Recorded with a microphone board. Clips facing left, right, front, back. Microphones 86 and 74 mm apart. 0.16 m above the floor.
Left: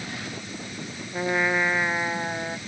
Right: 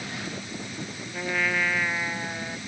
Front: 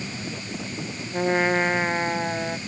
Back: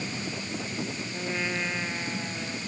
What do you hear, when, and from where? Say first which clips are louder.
1.1 s a trumpet: left 4 dB, front 12 dB; 25° left